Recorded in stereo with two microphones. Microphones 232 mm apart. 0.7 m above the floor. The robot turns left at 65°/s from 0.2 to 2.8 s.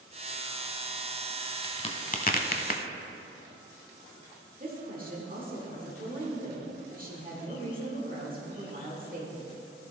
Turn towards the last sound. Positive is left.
turn(degrees=-35)  # may be behind; listen again after turning